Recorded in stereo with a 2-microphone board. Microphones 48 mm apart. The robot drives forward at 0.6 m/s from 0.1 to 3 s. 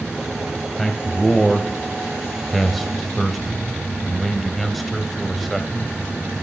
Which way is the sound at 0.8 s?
Centre (ahead or behind).